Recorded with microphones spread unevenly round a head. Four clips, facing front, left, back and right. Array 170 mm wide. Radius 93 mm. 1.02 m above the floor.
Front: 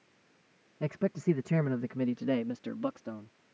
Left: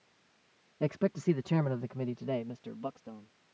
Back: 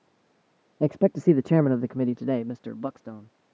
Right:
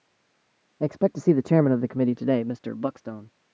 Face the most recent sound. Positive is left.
turn(degrees=-70)